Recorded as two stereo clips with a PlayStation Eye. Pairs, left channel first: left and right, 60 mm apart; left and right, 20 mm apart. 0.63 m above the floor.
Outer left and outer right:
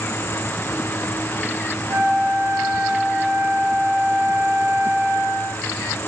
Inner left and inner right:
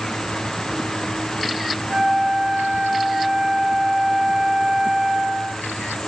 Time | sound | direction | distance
1.9 | a flute | 55° right (ahead or behind) | 2 m